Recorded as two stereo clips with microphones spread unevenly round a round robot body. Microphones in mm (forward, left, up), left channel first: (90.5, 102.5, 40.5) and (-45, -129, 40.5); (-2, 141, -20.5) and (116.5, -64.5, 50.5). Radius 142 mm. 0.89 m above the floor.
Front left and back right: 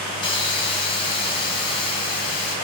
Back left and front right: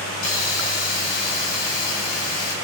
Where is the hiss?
135° left, 4 m.